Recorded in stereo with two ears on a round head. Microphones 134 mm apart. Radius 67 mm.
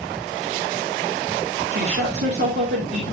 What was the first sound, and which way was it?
A woman speaking, 75° right (ahead or behind).